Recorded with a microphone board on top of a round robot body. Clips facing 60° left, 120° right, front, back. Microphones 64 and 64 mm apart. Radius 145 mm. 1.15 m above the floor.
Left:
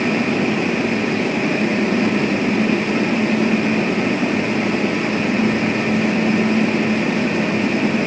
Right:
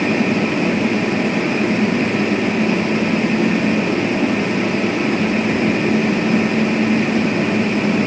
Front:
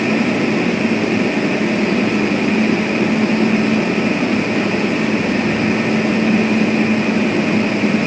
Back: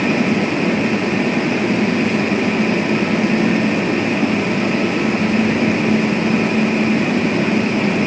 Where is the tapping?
No tapping in this recording.